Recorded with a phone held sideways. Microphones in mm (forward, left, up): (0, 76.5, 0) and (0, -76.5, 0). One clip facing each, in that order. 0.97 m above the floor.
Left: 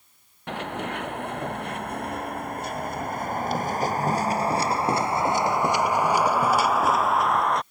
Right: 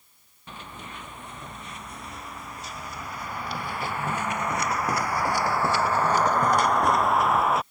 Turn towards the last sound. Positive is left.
turn(degrees=-5)  # may be behind; listen again after turning